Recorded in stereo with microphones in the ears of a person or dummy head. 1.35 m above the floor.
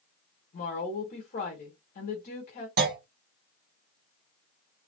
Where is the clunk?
50° right (ahead or behind), 0.8 m.